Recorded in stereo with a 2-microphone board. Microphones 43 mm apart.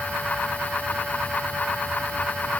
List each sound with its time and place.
Only background noise.